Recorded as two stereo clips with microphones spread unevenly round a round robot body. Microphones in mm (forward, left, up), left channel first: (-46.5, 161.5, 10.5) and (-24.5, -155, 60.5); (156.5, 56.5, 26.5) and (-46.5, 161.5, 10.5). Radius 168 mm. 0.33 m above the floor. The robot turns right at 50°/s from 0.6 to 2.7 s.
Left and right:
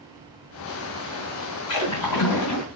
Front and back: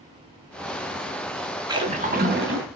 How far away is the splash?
About 3.5 m.